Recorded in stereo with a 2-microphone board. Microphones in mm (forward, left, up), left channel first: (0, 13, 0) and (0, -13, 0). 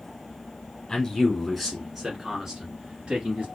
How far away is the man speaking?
About 1.8 m.